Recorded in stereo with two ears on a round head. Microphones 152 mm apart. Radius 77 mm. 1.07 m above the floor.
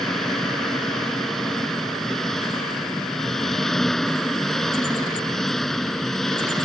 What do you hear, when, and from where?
0.0 s an engine running: centre (ahead or behind)